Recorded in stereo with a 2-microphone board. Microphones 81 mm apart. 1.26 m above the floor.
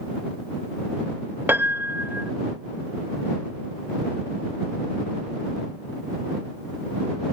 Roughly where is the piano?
Right.